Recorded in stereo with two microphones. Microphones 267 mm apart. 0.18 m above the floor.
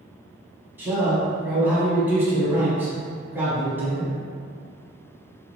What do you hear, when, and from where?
0.8 s a man speaking: 5° right (ahead or behind), 1.0 m